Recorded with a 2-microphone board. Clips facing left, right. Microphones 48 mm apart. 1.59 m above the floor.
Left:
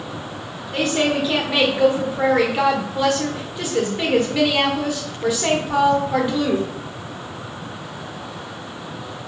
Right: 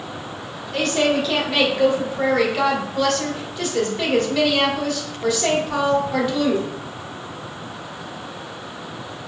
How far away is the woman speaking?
About 1.0 m.